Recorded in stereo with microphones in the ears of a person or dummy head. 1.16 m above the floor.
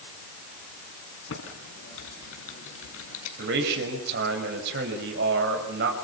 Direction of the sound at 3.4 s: 60° right (ahead or behind).